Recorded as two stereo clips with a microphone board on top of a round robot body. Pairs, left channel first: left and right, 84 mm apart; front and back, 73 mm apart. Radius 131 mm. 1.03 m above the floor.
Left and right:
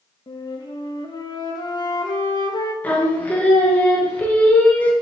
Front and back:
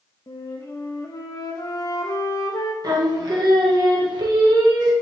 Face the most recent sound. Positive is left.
turn(degrees=160)